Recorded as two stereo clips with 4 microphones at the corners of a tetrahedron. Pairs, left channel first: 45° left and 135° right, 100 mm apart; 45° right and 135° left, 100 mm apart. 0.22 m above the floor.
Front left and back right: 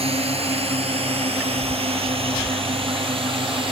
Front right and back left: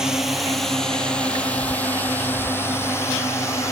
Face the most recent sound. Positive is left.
turn(degrees=-105)